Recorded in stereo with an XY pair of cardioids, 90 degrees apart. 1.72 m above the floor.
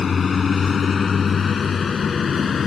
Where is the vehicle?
45° left; by 2.7 s 50° left.